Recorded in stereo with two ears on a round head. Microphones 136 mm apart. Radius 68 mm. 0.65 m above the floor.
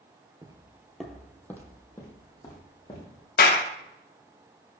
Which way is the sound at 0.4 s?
25° right (ahead or behind).